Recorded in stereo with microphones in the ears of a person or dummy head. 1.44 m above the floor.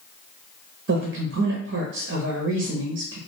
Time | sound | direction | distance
0.9 | a man speaking | 55° right (ahead or behind) | 0.6 m